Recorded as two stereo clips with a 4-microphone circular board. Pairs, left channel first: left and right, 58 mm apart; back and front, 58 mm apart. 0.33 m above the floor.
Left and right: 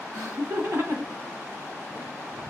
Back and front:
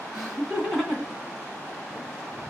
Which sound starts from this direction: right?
Laughter, at 0.1 s.